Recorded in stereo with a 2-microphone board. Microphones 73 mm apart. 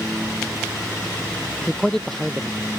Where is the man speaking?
10° left (ahead or behind); by 2.7 s 5° left (ahead or behind).